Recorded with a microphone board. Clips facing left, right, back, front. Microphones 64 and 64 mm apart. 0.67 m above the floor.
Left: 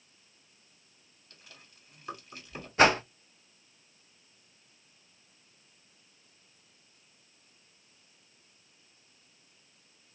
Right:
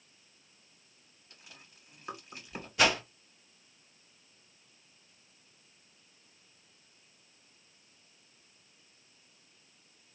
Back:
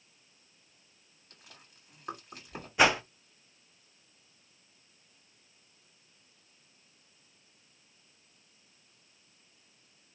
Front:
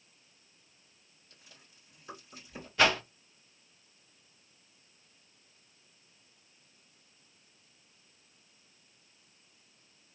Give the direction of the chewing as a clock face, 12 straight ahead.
5 o'clock.